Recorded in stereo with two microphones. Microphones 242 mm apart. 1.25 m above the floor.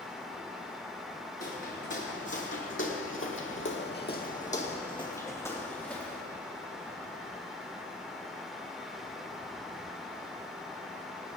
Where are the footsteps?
45° left (ahead or behind), 4 m; by 6.2 s centre (ahead or behind), 4 m.